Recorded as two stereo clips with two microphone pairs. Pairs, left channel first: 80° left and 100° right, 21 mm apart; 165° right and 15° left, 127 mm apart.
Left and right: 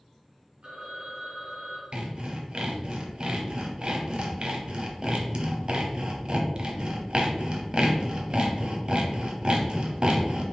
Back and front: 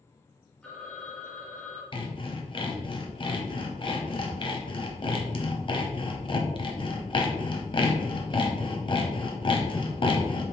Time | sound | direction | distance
0.6 | a phone ringing | 80° right | 2.0 m
1.9 | sawing | 125° right | 0.8 m